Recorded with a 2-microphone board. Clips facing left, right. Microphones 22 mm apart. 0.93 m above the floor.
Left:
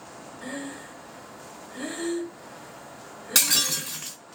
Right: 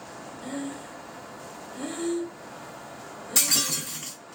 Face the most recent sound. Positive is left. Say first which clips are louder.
# left 2 dB
turn(degrees=80)